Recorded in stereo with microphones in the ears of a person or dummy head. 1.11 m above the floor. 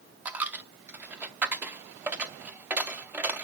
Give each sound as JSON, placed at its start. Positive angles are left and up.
{"t": 0.2, "sound": "a dropped coin", "side_deg": -10, "distance_m": 0.7}